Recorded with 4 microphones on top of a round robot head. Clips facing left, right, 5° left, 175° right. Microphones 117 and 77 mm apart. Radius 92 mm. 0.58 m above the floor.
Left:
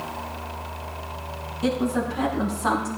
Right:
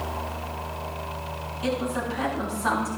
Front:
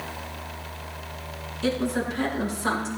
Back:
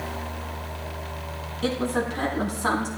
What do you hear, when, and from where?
1.6 s a woman speaking: 150° left, 6.5 m; by 2.9 s 155° left, 6 m